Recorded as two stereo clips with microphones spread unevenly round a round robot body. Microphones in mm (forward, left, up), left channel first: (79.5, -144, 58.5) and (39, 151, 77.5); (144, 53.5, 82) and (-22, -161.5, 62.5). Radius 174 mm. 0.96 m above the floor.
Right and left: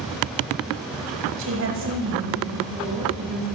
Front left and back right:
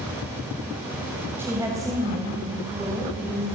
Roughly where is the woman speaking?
Behind left.